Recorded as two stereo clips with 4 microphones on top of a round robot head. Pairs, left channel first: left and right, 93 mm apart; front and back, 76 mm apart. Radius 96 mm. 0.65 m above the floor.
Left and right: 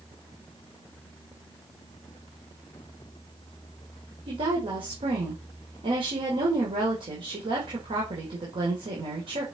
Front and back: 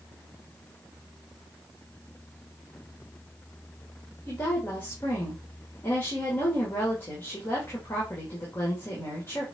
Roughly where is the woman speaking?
Ahead right.